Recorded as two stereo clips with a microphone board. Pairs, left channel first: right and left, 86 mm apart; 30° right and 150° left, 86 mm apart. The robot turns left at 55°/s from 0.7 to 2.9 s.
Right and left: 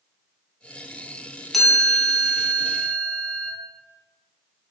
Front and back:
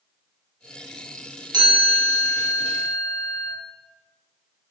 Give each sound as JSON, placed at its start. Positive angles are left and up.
{"t": 1.5, "sound": "a chime", "azimuth_deg": 180, "distance_m": 0.6}